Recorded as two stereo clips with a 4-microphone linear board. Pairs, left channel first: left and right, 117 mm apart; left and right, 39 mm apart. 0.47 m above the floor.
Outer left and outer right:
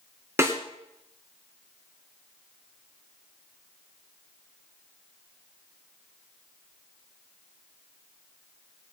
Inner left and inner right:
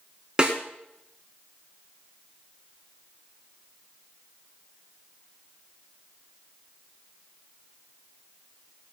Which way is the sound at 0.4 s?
20° right (ahead or behind).